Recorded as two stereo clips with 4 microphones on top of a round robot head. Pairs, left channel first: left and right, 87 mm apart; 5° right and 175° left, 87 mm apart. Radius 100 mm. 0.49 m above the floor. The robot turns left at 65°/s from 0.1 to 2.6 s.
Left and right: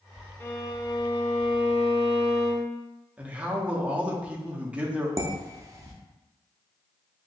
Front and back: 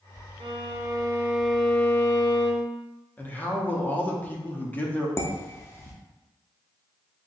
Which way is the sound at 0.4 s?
160° left.